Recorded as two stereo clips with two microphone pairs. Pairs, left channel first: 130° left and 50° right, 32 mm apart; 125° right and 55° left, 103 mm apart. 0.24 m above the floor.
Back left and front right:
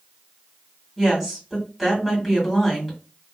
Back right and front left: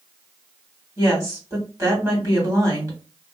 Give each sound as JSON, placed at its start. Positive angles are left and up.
{"t": 1.0, "sound": "a woman speaking", "azimuth_deg": 30, "distance_m": 1.9}